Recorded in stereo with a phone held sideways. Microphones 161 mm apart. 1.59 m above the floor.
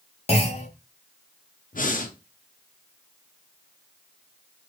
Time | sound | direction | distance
0.3 | a clunk | 40° left (ahead or behind) | 0.8 m
1.7 | breathing | 55° left (ahead or behind) | 0.5 m